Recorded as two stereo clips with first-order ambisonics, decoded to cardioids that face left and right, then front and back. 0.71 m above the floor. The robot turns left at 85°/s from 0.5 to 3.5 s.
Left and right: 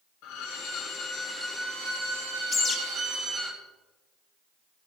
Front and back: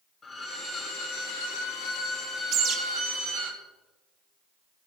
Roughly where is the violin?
Left.